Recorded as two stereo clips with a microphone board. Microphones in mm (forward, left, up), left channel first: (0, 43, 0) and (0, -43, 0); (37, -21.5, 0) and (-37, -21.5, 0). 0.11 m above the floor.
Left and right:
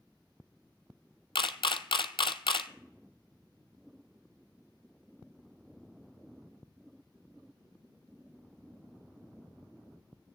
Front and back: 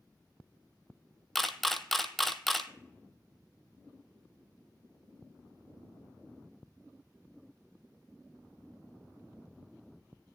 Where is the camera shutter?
90° left, 0.6 m.